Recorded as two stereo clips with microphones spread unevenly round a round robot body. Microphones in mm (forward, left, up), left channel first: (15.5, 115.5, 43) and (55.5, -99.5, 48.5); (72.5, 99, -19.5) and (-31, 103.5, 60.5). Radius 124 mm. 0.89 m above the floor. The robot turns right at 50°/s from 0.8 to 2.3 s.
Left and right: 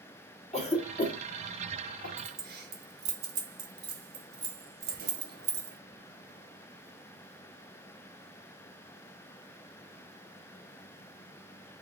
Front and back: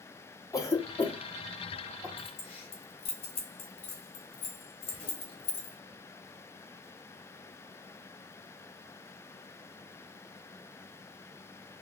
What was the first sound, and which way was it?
A cough, 40° left.